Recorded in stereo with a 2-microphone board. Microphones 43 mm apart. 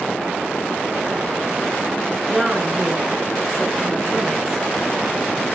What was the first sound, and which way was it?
A woman speaking, 10° right (ahead or behind).